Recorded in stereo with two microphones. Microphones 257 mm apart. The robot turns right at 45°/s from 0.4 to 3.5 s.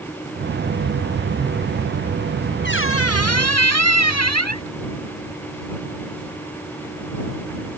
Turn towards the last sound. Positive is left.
turn(degrees=85)